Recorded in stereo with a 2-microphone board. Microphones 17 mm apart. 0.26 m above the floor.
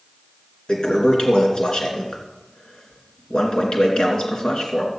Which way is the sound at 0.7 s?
55° left (ahead or behind).